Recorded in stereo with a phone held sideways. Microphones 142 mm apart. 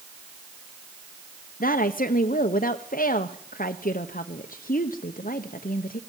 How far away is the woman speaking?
About 0.9 m.